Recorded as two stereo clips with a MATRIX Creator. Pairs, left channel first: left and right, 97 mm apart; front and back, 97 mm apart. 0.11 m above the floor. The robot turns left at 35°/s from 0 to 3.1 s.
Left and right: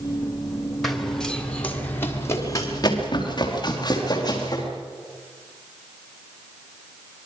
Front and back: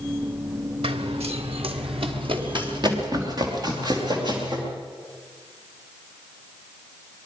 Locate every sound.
0.8 s running footsteps: straight behind, 2.5 m; by 4.6 s 135° left, 7.5 m